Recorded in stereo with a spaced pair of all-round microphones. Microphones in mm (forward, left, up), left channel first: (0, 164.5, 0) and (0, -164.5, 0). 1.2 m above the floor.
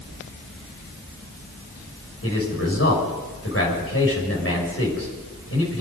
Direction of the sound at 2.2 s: 45° left (ahead or behind).